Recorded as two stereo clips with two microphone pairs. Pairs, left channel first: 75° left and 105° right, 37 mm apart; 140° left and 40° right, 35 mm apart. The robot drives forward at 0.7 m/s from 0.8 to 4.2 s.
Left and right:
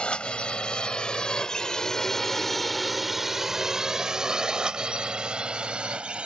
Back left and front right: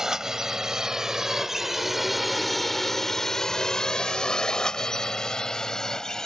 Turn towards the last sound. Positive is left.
turn(degrees=-150)